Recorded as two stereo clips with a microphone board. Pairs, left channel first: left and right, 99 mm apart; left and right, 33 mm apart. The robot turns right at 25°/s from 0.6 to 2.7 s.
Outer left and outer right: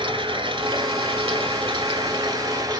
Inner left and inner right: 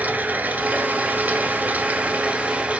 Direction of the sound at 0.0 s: 100° right.